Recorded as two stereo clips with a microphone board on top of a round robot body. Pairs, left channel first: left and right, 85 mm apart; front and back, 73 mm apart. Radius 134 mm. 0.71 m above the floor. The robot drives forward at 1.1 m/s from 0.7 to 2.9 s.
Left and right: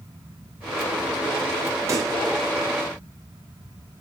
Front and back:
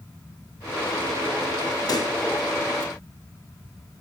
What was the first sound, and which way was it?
A pop, 35° right.